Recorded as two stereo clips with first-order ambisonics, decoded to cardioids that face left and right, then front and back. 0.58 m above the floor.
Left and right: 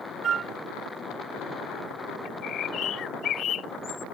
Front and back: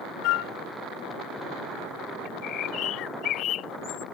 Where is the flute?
25° right.